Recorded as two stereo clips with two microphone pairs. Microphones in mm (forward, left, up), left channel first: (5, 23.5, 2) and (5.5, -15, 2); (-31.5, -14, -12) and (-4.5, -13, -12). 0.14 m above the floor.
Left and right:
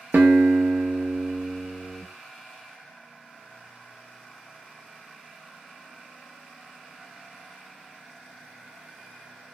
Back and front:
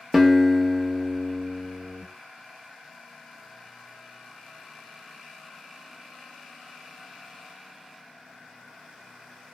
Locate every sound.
0.1 s a guitar: 75° right, 0.5 m